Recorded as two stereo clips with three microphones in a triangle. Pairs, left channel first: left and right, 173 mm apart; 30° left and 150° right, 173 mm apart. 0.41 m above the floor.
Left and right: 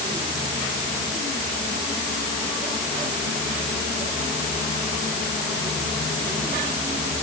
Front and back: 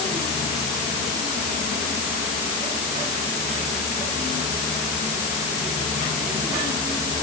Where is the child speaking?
I don't hear a child speaking.